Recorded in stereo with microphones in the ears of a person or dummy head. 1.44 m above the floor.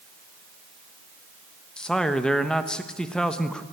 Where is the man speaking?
5° left (ahead or behind), 1.2 m.